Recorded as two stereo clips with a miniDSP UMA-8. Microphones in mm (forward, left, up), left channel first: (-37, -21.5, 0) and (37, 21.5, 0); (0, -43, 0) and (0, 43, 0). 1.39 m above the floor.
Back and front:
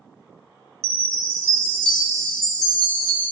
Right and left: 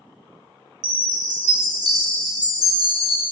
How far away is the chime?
About 1.4 m.